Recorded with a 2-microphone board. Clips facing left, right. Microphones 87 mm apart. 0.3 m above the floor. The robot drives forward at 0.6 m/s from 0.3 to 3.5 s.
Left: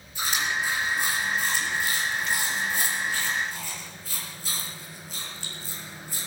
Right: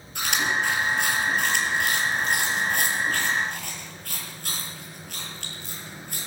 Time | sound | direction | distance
0.1 | chewing | 80° right | 7 m